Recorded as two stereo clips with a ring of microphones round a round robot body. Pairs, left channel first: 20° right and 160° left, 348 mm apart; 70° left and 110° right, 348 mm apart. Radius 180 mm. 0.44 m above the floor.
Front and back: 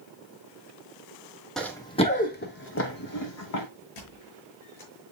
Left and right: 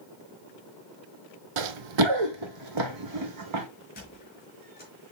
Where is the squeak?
Straight ahead, 5 m.